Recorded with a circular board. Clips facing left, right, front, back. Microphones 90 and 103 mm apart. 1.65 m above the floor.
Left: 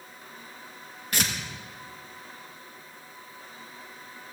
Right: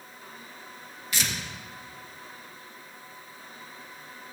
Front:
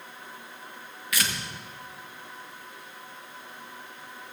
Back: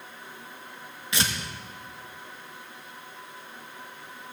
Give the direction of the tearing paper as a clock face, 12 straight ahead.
8 o'clock.